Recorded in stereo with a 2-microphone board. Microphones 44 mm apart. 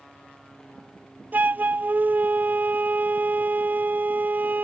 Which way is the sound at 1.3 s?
45° right (ahead or behind).